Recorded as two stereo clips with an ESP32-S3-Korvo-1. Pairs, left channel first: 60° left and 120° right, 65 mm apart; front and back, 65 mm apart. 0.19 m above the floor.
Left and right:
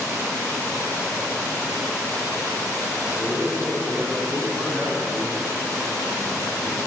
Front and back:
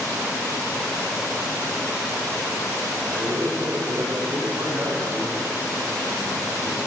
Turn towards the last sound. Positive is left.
turn(degrees=175)